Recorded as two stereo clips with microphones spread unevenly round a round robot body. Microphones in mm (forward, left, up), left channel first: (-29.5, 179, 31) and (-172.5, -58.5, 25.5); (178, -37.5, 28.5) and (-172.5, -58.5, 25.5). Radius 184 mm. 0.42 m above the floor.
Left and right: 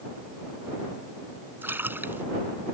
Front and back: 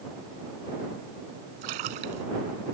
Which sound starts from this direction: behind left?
A splash, at 1.6 s.